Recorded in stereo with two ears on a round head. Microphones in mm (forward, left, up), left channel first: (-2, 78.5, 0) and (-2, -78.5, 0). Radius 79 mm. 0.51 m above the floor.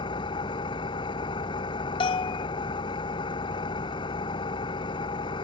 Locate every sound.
0.0 s an engine running: 25° left (ahead or behind)
2.0 s a bell: 30° left (ahead or behind)